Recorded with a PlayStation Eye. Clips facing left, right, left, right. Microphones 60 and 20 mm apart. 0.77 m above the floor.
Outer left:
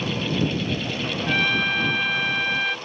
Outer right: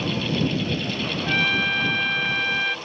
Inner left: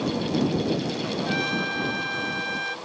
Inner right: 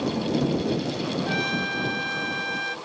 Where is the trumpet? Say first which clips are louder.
Even, inner left 1 dB; centre (ahead or behind).